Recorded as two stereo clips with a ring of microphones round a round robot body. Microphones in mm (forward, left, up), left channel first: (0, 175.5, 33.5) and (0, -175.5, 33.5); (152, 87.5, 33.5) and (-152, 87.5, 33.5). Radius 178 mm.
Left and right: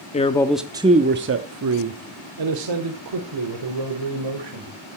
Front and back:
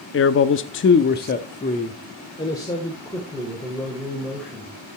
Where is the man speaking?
25° left, 0.8 m; by 4.7 s 90° right, 2.5 m.